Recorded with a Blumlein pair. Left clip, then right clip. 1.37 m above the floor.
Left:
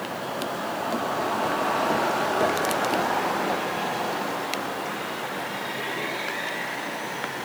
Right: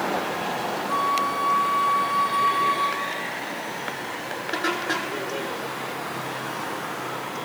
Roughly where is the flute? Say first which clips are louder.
Right 5 dB; ahead right.